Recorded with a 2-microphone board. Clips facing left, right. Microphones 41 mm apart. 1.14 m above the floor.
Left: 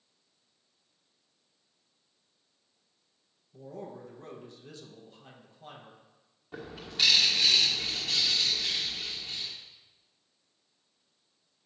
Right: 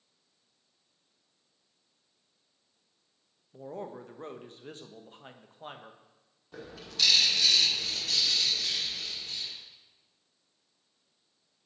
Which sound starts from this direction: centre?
A bird, at 6.5 s.